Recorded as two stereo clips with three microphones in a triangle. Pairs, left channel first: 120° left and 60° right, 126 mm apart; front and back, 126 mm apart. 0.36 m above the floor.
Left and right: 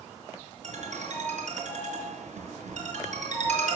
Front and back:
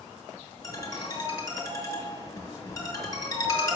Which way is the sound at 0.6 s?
65° right.